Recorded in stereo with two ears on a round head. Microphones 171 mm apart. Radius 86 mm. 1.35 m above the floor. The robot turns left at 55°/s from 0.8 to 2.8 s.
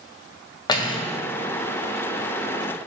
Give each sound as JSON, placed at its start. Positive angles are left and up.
{"t": 0.7, "sound": "cutlery clinking", "side_deg": 20, "distance_m": 0.6}